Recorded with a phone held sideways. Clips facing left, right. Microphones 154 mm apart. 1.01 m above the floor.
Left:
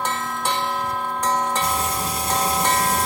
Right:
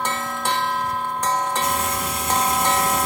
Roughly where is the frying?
Left.